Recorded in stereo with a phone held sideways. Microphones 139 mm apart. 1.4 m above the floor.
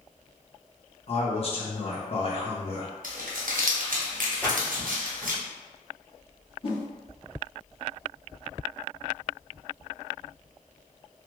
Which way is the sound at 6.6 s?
40° left (ahead or behind).